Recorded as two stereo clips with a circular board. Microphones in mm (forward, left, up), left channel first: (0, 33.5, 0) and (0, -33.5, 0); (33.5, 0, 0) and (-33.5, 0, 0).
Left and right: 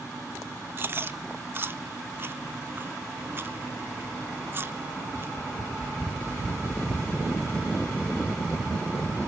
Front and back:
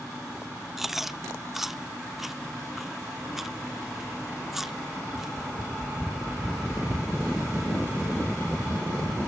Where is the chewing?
95° right, 0.6 m.